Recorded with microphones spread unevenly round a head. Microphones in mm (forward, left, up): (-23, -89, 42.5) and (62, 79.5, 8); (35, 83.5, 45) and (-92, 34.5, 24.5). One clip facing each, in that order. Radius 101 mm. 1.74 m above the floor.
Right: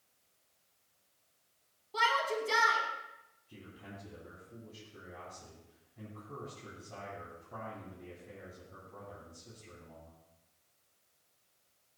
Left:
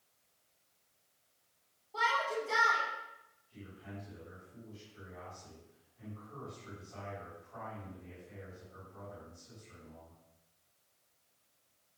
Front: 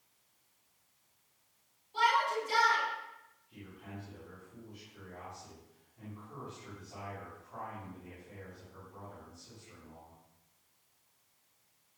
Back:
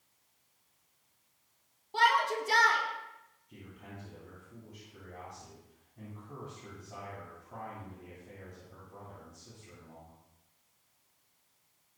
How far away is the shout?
About 4.5 m.